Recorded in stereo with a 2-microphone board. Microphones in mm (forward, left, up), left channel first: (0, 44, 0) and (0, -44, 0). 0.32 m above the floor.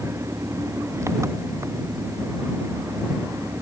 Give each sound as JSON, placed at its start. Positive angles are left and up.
{"t": 0.0, "sound": "an engine running", "side_deg": -35}